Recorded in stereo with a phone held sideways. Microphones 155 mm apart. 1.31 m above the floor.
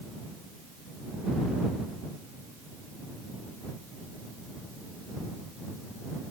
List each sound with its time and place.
Only background noise.